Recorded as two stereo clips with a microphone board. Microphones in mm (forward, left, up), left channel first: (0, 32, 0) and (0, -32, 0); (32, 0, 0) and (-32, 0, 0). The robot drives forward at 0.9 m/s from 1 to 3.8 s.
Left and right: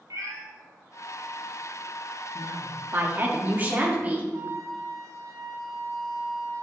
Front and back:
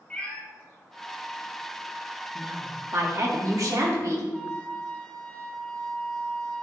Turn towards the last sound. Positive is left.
turn(degrees=-75)